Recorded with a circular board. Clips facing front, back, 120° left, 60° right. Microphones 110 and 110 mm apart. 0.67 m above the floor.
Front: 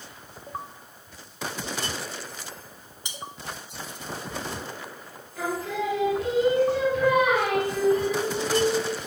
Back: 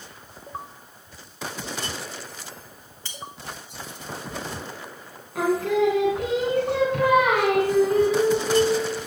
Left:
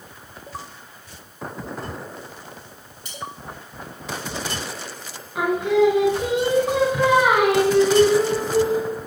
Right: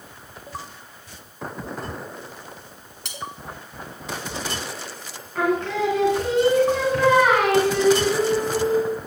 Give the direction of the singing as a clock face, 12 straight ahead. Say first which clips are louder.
Back 8 dB, left 4 dB; 5 o'clock.